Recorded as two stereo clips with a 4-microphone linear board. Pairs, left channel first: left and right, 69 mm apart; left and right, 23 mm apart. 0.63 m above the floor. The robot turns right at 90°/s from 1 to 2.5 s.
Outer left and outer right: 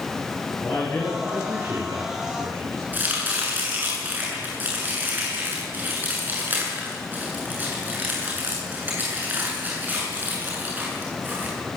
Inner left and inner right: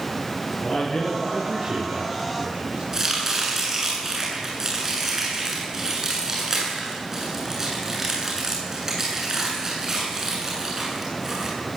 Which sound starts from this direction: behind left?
A man speaking, at 0.6 s.